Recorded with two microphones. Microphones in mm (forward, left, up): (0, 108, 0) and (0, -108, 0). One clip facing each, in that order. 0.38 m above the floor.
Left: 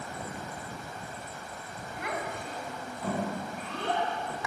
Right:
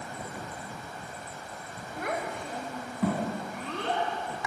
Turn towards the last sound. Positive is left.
turn(degrees=-70)  # may be behind; listen again after turning